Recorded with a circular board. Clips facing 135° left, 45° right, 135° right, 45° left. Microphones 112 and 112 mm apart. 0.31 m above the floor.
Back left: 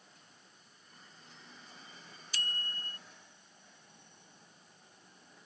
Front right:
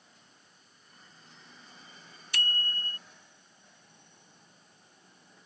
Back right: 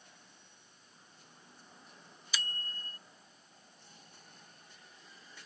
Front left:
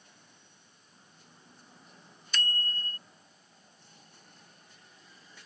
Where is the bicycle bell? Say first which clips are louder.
Front right 7 dB, front left 7 dB; 50° right.